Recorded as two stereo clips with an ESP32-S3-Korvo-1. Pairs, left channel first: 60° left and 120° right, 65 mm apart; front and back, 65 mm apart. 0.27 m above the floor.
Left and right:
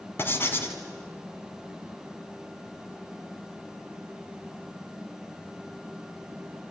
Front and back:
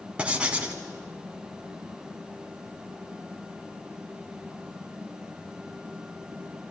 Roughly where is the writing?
Left.